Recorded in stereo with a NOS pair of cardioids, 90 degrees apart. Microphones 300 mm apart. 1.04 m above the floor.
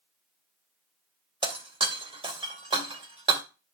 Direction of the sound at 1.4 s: 20° right.